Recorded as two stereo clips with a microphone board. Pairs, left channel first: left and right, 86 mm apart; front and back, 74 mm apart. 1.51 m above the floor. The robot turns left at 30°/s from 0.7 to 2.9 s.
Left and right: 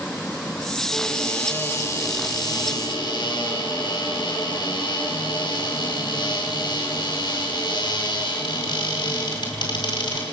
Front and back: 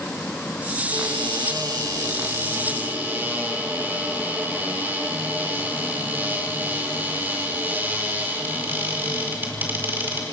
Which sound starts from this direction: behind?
A cupboard door, at 0.9 s.